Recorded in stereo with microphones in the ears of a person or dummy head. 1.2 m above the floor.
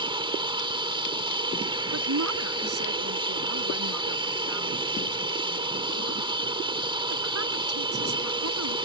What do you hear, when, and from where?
0.0 s an aircraft: 25° right (ahead or behind)
1.9 s a woman speaking: 80° right